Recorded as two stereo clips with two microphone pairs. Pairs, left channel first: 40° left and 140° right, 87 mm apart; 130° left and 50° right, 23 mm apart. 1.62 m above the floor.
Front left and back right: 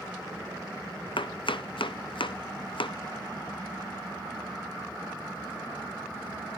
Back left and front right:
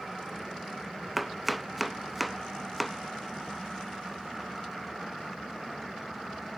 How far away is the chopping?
About 0.5 m.